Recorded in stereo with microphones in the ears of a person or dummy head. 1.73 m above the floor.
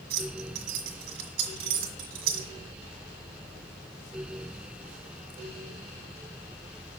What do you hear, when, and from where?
0.1 s keys jangling: 60° right (ahead or behind), 1.7 m